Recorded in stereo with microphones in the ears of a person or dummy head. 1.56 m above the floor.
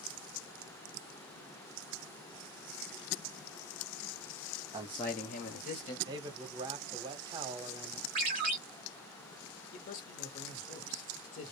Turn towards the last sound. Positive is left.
turn(degrees=45)  # may be behind; listen again after turning